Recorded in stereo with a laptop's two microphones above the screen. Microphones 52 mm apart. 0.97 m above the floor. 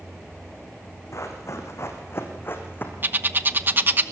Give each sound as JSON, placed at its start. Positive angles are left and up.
{"t": 1.1, "sound": "running footsteps", "side_deg": 70, "distance_m": 4.5}
{"t": 3.0, "sound": "a bird", "side_deg": -40, "distance_m": 1.0}